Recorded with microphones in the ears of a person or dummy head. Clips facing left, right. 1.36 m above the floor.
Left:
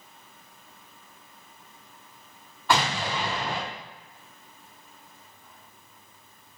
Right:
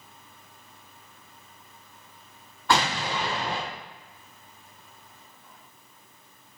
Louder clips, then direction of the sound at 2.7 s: Even; 5° left (ahead or behind).